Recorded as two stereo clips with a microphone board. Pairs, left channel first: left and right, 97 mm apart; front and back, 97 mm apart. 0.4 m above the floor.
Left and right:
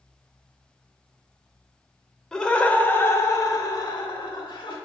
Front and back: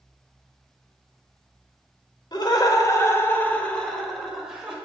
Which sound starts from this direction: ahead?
Laughter, at 2.3 s.